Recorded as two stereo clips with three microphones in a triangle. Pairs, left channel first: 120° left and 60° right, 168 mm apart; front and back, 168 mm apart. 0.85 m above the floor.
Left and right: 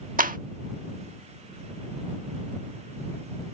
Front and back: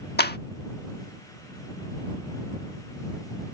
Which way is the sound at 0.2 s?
20° right.